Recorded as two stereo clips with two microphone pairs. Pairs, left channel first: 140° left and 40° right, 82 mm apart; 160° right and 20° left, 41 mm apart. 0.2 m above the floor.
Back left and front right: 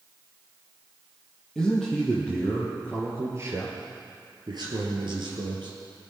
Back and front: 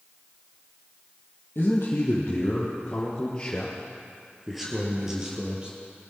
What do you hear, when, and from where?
1.6 s a man speaking: 125° right, 4 m; by 5.7 s 45° right, 4 m